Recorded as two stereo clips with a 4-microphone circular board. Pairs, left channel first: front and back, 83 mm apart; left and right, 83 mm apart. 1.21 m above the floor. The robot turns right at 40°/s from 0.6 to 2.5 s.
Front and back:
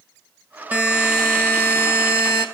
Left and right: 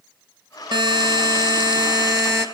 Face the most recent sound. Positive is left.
turn(degrees=-35)